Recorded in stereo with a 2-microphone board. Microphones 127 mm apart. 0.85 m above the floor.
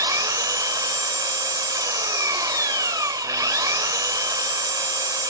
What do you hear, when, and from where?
0.0 s an engine running: 30° right (ahead or behind), 0.7 m